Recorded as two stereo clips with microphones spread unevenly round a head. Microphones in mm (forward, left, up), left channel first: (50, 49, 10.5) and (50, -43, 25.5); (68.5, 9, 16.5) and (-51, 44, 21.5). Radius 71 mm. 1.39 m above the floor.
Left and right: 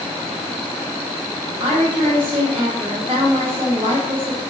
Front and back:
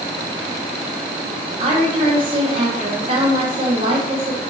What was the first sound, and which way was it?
A woman speaking, 140° right.